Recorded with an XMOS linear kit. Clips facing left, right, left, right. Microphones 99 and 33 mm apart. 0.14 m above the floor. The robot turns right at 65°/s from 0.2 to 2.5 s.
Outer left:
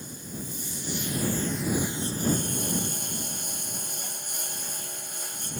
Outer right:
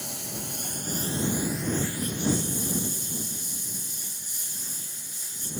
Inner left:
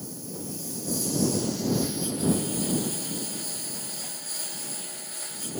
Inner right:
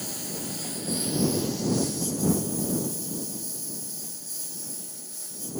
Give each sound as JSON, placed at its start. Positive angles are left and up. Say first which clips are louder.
{"t": 0.0, "sound": "a lawn mower", "louder": "outer right 1 dB, inner right 2 dB", "azimuth_deg": -90}